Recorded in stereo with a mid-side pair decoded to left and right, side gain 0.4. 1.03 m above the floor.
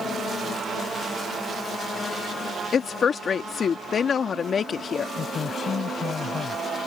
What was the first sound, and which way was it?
A woman speaking, 55° left.